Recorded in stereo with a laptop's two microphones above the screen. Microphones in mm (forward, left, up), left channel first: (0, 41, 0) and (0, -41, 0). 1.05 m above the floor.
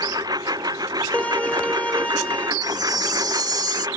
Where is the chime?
60° right (ahead or behind).